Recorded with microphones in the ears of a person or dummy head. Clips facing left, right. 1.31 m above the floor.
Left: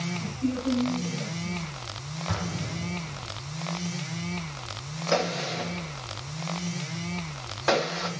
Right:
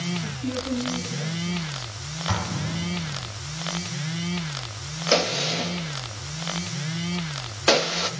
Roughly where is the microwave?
I don't hear a microwave.